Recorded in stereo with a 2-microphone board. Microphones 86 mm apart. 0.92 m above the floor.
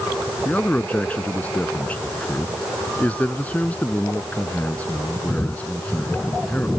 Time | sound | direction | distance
0.5 | a man speaking | 20° left (ahead or behind) | ?